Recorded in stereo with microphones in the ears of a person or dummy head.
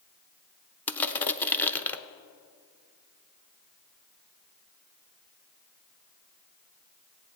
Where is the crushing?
15° left (ahead or behind), 0.6 m.